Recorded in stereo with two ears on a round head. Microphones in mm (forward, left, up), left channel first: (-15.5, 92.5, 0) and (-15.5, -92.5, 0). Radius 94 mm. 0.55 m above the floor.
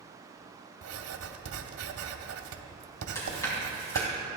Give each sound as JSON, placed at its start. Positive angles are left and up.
{"t": 0.8, "sound": "writing", "side_deg": -75, "distance_m": 0.9}
{"t": 3.1, "sound": "chewing", "side_deg": 15, "distance_m": 3.5}